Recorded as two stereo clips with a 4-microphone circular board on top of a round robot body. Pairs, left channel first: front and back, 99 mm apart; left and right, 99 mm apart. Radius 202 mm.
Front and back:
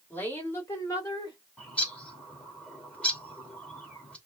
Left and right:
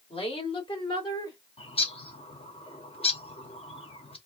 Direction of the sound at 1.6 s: 80° left.